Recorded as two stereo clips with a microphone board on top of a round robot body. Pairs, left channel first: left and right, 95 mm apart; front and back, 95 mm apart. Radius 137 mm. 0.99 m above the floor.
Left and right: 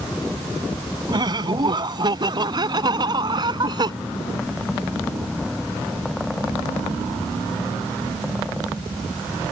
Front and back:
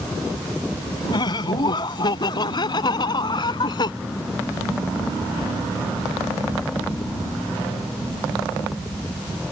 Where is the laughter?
50° right.